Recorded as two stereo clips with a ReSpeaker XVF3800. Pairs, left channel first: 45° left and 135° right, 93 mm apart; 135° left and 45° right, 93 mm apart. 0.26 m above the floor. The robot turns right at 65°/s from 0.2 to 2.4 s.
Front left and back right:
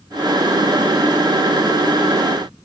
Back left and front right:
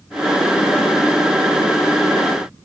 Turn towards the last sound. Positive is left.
No sound to turn to.